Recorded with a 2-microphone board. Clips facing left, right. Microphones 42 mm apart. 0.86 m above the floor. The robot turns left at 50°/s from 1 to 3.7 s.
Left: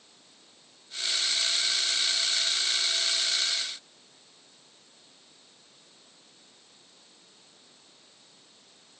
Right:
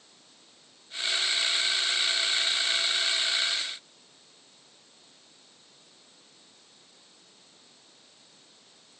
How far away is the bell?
I don't hear a bell.